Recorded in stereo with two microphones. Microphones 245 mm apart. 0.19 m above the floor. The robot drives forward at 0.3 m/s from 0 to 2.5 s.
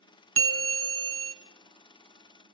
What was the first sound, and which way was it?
A bell, 60° right (ahead or behind).